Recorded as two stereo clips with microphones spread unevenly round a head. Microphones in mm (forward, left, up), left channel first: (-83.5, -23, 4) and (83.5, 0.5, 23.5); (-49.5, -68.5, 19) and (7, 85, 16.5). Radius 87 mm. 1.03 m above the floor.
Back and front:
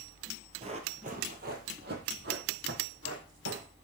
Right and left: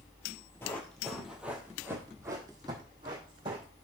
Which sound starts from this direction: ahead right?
Running footsteps, at 0.6 s.